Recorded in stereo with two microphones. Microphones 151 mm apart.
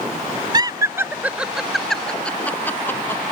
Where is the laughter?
30° right (ahead or behind); by 3.2 s 15° left (ahead or behind).